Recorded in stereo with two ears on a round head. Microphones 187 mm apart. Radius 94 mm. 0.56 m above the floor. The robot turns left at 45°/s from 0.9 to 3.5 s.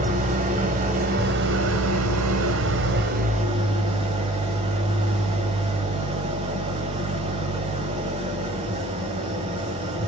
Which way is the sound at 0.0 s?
35° right.